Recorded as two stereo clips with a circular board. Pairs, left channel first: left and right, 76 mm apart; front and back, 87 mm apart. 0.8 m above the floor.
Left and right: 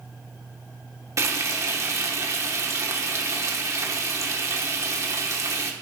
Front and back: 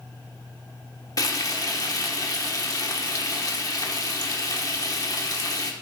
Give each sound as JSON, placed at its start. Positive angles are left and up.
{"t": 1.2, "sound": "frying", "azimuth_deg": -40, "distance_m": 1.1}